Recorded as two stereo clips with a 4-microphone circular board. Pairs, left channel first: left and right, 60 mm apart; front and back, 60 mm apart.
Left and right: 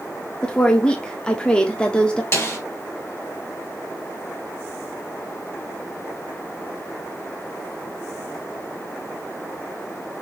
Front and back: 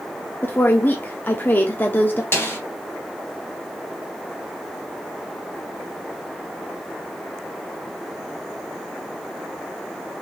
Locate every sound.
0.4 s a woman speaking: 25° left, 0.7 m
2.3 s a snare drum: 50° left, 2 m